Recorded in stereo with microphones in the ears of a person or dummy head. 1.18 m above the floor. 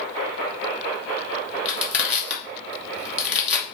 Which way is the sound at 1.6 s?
15° left (ahead or behind).